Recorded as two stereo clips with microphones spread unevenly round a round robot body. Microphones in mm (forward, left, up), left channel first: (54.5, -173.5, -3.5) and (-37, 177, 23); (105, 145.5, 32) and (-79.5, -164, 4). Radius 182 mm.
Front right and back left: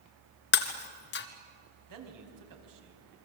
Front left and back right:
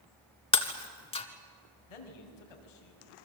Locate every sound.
0.5 s breaking glass: 15° right, 1.4 m
1.9 s a man speaking: 65° left, 4.5 m